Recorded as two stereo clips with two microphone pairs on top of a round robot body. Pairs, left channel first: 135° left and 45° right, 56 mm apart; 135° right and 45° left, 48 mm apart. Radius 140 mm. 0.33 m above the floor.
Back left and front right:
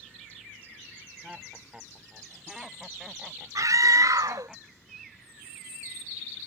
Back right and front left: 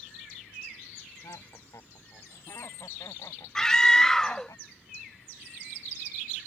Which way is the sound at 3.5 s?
50° right.